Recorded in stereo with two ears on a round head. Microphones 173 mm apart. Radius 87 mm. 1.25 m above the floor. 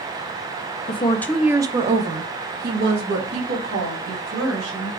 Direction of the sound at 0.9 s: 30° left (ahead or behind).